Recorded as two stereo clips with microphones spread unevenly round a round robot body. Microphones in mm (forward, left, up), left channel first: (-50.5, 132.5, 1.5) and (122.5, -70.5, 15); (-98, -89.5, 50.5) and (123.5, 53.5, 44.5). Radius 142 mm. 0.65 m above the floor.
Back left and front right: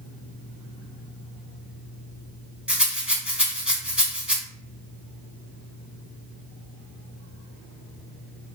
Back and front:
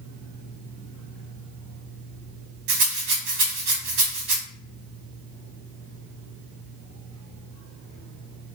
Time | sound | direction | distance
2.7 | a rattle | 35° left | 1.5 m